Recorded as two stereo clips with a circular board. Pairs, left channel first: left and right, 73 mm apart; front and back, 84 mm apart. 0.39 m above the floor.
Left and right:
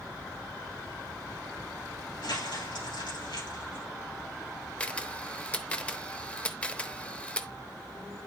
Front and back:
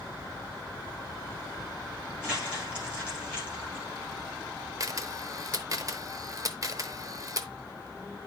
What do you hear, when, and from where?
2.2 s crumpling: 100° left, 8.5 m
4.8 s a camera shutter: 155° left, 0.8 m